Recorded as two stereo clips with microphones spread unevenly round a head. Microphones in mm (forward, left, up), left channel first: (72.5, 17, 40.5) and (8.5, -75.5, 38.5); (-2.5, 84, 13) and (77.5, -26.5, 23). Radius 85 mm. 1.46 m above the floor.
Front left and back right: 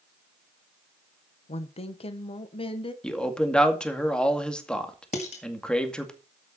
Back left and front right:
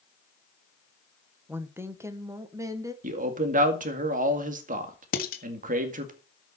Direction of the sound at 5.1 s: 105° left.